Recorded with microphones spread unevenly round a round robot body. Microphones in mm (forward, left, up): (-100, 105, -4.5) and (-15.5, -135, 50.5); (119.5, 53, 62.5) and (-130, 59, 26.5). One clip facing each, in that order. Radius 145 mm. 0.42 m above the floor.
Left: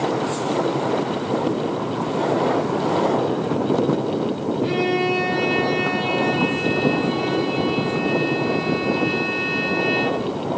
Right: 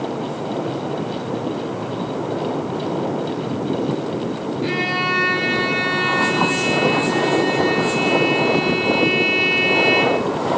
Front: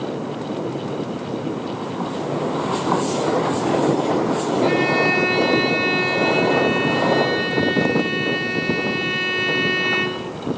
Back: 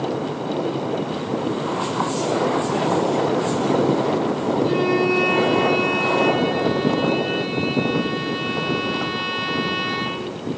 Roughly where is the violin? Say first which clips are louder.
Left 6 dB, back 1 dB; ahead right.